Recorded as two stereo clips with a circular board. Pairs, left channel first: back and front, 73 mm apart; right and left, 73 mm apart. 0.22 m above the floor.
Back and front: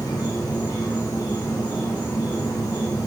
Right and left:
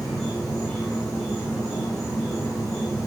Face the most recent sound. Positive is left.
turn(degrees=-170)